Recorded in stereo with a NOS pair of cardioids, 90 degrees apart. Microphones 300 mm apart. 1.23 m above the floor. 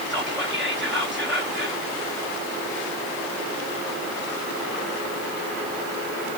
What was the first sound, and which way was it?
Whispering, straight ahead.